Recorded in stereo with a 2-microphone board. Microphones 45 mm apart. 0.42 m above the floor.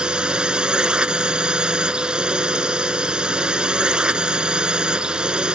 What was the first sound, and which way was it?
A drone, 20° right (ahead or behind).